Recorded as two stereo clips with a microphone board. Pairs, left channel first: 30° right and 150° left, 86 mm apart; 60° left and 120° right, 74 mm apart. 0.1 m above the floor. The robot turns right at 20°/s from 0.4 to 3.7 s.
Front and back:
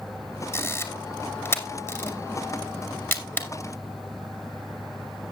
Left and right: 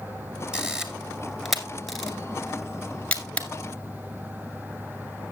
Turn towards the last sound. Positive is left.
turn(degrees=15)